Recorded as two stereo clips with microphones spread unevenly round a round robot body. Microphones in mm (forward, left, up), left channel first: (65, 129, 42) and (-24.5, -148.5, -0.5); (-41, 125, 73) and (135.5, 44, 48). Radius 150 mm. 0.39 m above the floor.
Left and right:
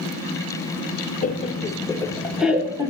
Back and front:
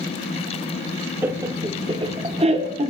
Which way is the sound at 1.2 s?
25° left.